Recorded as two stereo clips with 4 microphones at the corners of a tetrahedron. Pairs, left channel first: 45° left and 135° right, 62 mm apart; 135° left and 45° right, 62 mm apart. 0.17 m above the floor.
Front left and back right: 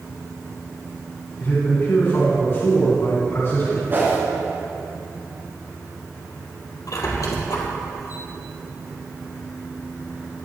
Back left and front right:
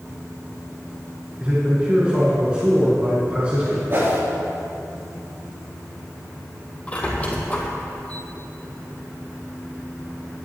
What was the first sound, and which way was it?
A man speaking, 15° left.